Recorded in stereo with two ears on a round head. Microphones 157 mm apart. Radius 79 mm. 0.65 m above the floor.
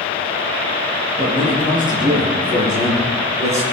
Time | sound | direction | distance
1.2 | a man speaking | 35° right (ahead or behind) | 9.5 m